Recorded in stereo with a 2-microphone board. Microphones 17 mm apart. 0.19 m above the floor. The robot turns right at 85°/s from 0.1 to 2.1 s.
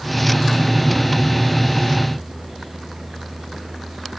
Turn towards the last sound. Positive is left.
No sound to turn to.